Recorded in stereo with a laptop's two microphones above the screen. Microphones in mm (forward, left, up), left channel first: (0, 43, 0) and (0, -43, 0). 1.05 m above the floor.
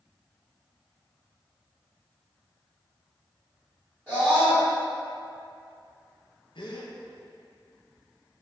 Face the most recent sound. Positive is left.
turn(degrees=70)  # may be behind; listen again after turning